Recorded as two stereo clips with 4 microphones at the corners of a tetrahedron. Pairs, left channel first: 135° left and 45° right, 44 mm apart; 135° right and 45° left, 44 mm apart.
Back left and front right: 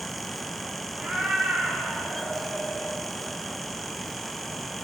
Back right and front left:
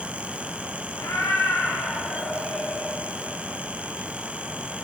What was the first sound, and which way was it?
A cat meowing, 115° right.